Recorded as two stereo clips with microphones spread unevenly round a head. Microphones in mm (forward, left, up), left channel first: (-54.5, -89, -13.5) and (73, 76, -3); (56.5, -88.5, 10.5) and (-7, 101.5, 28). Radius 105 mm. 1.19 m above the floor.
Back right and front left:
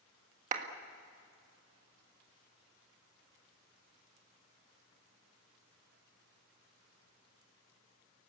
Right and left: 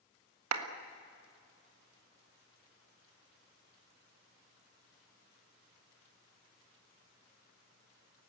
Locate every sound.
0.5 s a clap: 105° left, 1.6 m